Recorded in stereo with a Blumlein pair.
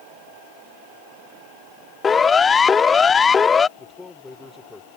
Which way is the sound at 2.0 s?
20° left.